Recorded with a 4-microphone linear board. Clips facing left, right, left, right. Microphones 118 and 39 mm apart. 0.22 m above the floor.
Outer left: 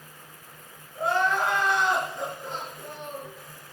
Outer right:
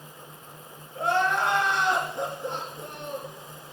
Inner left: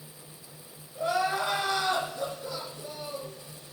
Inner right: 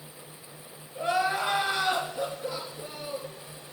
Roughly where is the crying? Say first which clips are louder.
Even, inner right 1 dB; right.